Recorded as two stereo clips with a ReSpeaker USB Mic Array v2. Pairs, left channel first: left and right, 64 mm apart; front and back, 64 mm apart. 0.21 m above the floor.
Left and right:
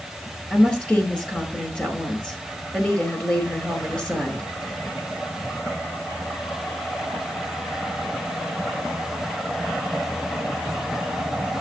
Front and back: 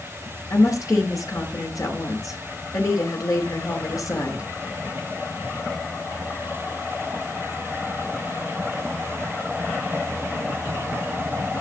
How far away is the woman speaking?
About 4.5 m.